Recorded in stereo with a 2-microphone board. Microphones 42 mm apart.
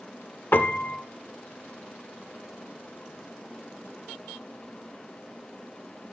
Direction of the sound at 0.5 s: 50° left (ahead or behind).